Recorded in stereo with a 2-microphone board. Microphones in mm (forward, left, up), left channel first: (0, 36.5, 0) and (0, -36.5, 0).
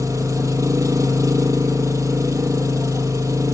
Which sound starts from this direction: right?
An engine running, at 0.0 s.